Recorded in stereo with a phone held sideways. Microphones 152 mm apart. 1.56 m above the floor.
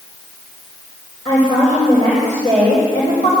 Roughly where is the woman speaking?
Left.